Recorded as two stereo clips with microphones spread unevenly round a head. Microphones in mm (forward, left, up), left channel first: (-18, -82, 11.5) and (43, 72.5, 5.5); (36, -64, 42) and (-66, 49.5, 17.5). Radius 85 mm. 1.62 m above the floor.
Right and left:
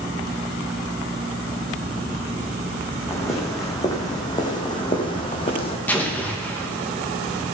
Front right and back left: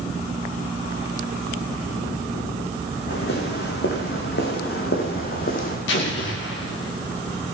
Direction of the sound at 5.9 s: 30° right.